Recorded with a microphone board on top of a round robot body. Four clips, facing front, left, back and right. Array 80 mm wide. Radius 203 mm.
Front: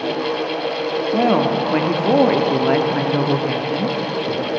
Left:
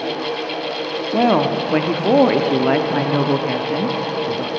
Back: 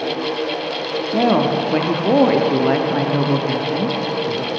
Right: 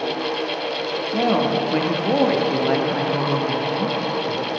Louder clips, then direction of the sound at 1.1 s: Left 4 dB, back 1 dB; 80° left.